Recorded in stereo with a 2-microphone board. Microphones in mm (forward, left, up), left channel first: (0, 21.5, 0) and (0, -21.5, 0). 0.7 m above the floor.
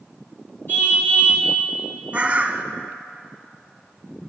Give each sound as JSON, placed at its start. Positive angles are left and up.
{"t": 0.7, "sound": "a car horn", "side_deg": 50, "distance_m": 5.5}
{"t": 2.1, "sound": "a bird", "side_deg": -35, "distance_m": 1.0}